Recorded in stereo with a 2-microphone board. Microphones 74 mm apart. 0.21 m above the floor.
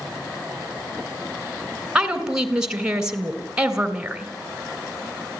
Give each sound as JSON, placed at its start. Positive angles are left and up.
{"t": 1.9, "sound": "a woman speaking", "side_deg": -10, "distance_m": 3.0}